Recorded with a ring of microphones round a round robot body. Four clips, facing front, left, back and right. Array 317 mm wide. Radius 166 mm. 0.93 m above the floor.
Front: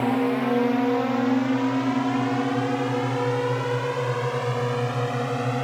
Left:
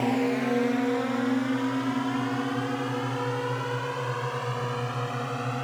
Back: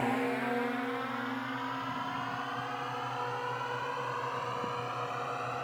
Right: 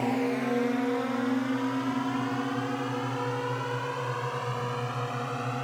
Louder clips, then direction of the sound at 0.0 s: Left 2 dB, front 9 dB; 15° left.